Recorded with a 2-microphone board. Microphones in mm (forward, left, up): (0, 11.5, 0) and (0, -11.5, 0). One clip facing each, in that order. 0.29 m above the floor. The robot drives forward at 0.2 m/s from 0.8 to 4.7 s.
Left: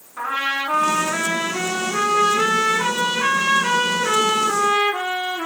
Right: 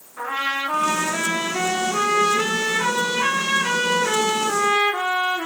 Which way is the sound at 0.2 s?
70° left (ahead or behind).